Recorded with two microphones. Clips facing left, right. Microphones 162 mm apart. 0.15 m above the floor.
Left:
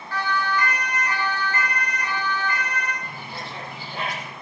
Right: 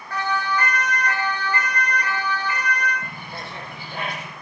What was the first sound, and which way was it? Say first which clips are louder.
A siren: right 1 dB; 75° right (ahead or behind).